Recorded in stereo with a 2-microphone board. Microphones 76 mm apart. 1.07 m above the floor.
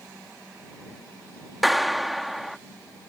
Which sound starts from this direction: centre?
A clap, at 1.6 s.